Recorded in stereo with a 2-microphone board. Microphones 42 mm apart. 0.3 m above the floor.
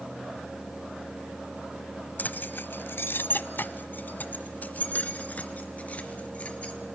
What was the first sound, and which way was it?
Keys jangling, 45° left (ahead or behind).